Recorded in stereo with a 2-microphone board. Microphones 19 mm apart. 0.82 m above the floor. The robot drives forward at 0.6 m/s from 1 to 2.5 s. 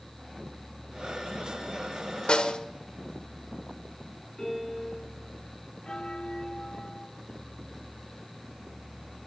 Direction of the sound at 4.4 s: 35° left (ahead or behind).